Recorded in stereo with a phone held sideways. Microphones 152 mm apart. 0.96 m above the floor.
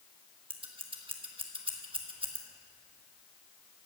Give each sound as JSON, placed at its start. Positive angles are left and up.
{"t": 0.5, "sound": "scissors", "side_deg": -40, "distance_m": 1.3}